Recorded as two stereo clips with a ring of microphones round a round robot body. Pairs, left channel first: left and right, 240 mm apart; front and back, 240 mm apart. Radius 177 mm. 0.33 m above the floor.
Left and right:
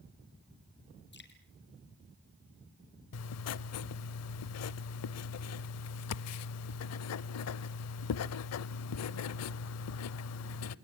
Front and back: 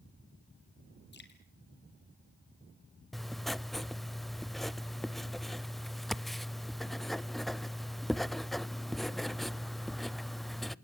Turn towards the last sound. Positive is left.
turn(degrees=90)